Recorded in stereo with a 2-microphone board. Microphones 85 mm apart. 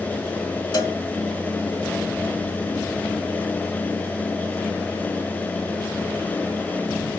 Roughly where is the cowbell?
Left.